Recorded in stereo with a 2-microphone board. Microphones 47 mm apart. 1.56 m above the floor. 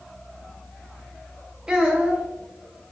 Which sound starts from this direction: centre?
A child speaking, at 1.7 s.